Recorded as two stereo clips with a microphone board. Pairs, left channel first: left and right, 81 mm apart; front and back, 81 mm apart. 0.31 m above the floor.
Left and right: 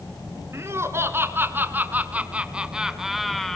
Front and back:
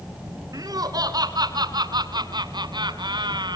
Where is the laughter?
145° right, 4 m; by 3.6 s 175° left, 3 m.